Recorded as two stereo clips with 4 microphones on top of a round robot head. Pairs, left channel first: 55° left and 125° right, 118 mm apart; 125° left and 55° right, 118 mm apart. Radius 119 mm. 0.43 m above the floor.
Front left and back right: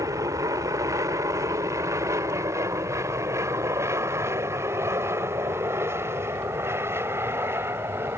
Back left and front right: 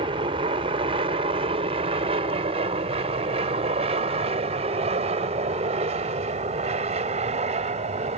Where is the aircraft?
70° right; by 8.2 s 55° right.